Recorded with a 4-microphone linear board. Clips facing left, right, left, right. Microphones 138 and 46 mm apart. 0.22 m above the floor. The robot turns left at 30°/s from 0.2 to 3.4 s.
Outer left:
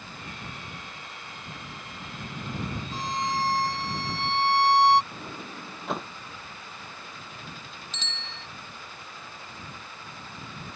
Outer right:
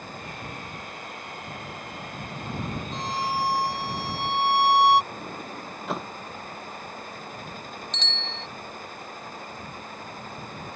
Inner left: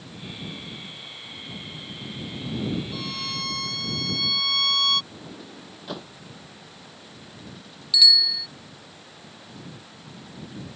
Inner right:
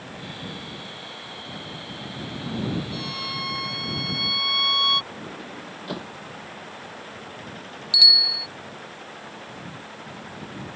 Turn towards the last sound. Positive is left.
turn(degrees=5)  # may be behind; listen again after turning